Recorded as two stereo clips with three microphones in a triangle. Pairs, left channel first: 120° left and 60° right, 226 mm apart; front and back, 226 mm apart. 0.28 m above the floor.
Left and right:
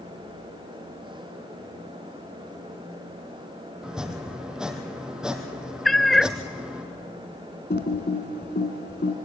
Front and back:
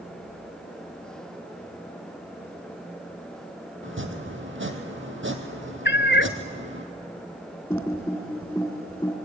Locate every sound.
3.8 s chopping: 145° right, 1.9 m
5.8 s a cat meowing: 30° left, 0.5 m
7.7 s typing on a keyboard: 80° left, 2.5 m